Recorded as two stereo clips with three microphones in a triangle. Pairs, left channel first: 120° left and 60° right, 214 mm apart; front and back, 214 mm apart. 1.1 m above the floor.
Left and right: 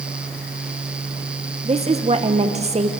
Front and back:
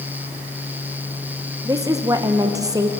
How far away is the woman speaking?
About 0.9 m.